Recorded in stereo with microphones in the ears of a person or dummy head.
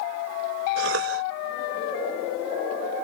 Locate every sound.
0.8 s a cough: 80° right